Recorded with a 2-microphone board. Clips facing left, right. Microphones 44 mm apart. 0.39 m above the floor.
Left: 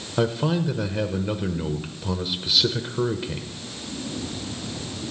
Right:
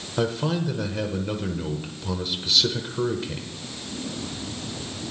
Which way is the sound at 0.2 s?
10° left (ahead or behind).